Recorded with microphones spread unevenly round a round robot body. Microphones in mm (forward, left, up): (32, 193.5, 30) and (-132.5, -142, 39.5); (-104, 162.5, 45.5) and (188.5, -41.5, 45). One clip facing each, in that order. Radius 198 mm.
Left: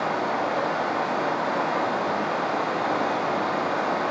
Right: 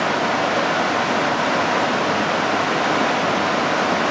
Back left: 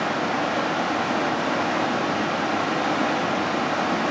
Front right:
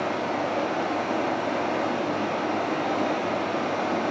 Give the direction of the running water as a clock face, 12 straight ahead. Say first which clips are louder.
Right 5 dB, back left 2 dB; 5 o'clock.